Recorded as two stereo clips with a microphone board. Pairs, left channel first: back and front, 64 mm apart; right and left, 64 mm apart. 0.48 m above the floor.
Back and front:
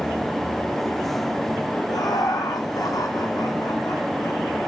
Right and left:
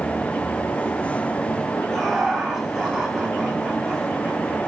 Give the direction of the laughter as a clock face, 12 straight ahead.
6 o'clock.